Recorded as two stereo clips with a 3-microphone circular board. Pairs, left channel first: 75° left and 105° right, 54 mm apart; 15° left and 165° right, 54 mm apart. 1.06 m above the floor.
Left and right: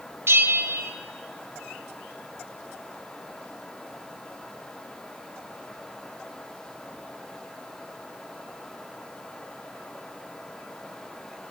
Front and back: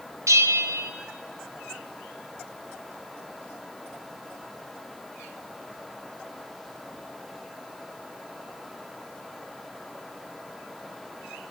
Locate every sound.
0.3 s a bell: 145° right, 0.6 m